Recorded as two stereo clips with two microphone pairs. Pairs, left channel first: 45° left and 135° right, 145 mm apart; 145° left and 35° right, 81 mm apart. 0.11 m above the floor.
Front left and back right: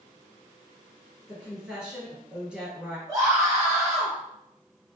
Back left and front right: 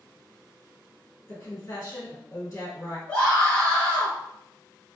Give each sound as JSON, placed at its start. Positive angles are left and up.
{"t": 1.3, "sound": "a woman speaking", "azimuth_deg": 140, "distance_m": 1.6}
{"t": 3.1, "sound": "a scream", "azimuth_deg": -165, "distance_m": 1.3}